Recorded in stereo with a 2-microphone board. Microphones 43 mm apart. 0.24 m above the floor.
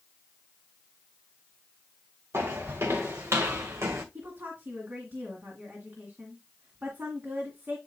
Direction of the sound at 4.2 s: 55° right (ahead or behind).